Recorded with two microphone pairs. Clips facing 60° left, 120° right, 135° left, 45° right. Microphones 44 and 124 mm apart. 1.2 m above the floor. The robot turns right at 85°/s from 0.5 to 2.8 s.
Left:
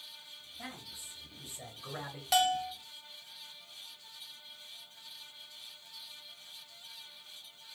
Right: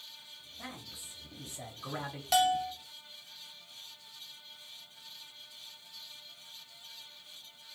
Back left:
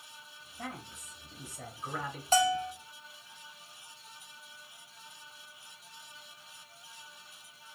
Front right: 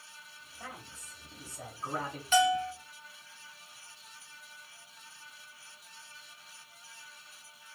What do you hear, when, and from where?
0.6 s a man speaking: 140° left, 1.5 m; by 2.2 s 80° right, 1.5 m
2.3 s a bell: 150° left, 0.5 m; by 2.7 s 175° right, 0.5 m